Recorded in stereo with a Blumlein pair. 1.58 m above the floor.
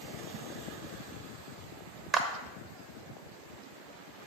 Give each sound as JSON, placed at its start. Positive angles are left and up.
{"t": 2.1, "sound": "a clap", "azimuth_deg": -20, "distance_m": 0.8}